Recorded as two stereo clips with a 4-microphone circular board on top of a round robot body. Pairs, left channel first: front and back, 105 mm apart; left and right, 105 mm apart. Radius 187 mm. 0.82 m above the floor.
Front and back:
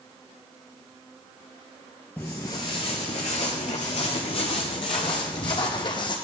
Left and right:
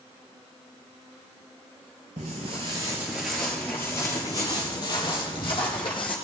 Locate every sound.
2.2 s footsteps: 75° right, 1.0 m; by 6.2 s 45° left, 2 m